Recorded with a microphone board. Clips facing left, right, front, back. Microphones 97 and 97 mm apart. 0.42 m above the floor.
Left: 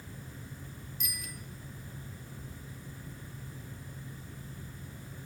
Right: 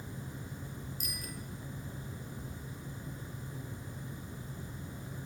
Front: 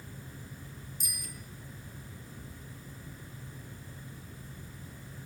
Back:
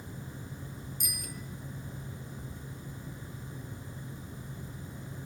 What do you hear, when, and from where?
1.0 s a bicycle bell: 145° right, 6 m